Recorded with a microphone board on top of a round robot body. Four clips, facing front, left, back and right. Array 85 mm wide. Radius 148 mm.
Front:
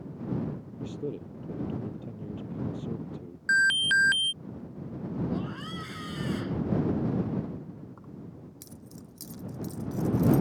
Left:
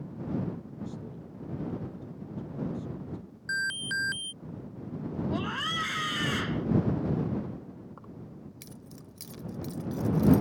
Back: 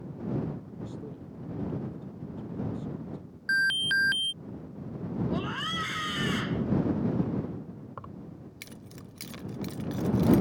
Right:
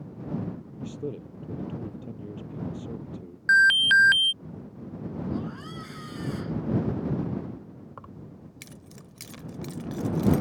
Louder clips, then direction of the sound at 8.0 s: Right 1 dB, back 2 dB; 145° right.